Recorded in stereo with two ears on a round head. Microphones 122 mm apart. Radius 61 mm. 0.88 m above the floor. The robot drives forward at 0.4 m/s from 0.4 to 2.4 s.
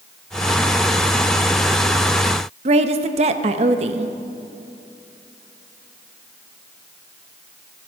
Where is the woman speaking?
50° right (ahead or behind), 0.8 m.